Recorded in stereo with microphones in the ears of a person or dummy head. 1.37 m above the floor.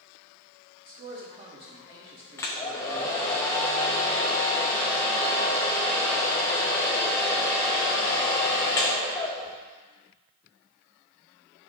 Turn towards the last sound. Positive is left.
turn(degrees=10)  # may be behind; listen again after turning